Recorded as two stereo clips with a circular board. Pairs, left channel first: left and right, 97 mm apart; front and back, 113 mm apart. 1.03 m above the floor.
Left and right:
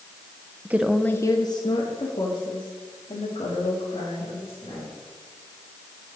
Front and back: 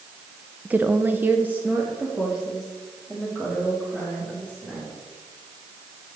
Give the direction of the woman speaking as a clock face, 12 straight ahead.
4 o'clock.